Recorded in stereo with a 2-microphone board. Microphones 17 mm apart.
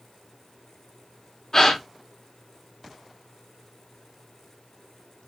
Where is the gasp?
30° left (ahead or behind), 0.9 m.